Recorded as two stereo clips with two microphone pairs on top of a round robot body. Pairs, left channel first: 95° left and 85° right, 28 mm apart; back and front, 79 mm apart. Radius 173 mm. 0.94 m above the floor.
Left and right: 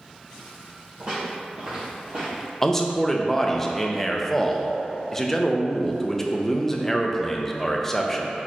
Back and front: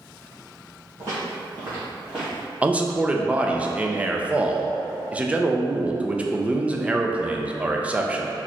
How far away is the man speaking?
About 0.6 m.